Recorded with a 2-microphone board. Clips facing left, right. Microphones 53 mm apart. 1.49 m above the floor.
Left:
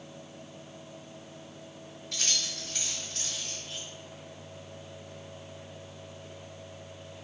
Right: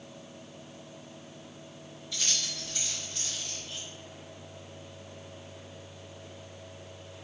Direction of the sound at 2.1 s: 65° left (ahead or behind).